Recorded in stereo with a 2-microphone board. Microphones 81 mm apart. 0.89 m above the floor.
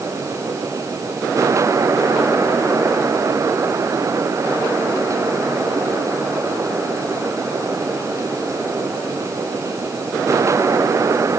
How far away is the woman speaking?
No woman speaking in this recording.